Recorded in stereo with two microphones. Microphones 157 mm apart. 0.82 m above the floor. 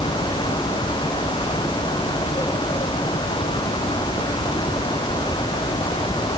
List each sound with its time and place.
Only background noise.